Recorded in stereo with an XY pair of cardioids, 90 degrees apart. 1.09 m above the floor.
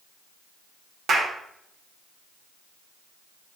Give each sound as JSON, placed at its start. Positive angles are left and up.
{"t": 1.1, "sound": "a clap", "azimuth_deg": -60, "distance_m": 2.5}